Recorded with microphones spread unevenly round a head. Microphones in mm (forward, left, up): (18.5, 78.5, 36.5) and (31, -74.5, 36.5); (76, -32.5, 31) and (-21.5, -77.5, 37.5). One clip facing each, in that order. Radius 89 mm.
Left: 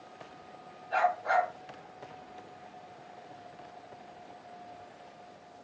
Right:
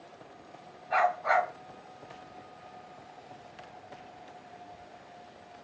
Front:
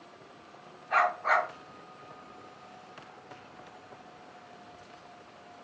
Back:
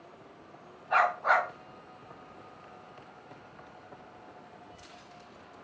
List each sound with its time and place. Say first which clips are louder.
0.9 s a dog barking: right 1 dB, back 1 dB; 95° right, 1.8 m